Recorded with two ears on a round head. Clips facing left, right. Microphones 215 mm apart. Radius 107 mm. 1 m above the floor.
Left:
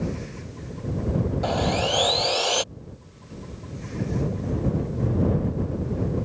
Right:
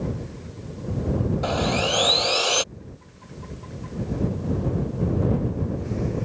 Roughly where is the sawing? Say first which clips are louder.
Even; centre.